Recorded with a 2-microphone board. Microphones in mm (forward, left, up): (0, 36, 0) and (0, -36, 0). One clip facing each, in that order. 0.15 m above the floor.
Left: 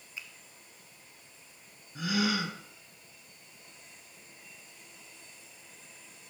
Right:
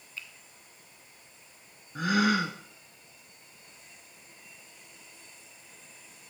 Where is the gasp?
50° right (ahead or behind), 1.1 m.